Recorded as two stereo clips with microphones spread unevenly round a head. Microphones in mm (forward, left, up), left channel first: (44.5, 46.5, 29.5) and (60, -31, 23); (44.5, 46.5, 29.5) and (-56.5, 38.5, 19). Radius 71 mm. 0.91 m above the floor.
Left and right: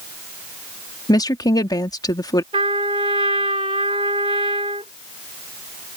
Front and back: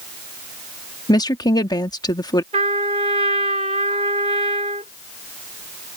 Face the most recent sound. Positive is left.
turn(degrees=-125)